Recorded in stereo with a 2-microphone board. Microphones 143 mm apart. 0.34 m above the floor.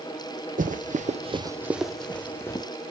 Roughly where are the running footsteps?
Right.